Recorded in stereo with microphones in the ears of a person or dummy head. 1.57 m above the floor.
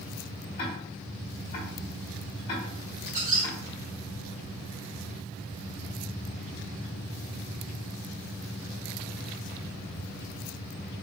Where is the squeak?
35° right (ahead or behind), 1.6 m.